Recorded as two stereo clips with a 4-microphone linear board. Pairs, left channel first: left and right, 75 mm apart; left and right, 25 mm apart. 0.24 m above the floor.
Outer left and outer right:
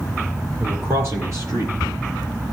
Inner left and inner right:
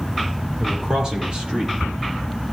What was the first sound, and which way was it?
A man speaking, 35° right (ahead or behind).